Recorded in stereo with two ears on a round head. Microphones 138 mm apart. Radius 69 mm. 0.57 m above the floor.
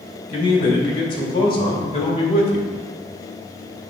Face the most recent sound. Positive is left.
turn(degrees=40)  # may be behind; listen again after turning